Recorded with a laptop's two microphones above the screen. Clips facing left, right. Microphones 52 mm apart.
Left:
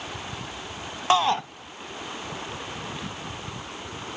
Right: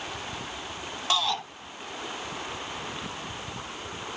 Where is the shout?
35° left (ahead or behind), 0.7 m.